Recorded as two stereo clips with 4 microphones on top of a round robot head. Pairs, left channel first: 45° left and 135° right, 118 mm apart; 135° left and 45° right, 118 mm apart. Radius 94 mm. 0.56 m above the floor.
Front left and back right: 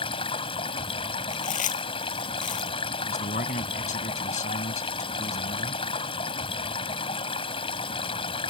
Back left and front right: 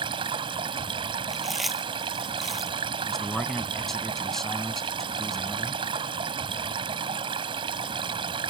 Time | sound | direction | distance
0.0 | running water | straight ahead | ?
1.3 | chewing | 45° left | ?
3.1 | a man speaking | 50° left | ?